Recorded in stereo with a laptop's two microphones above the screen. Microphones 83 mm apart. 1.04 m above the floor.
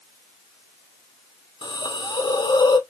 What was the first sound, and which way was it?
A hiss, 65° left (ahead or behind).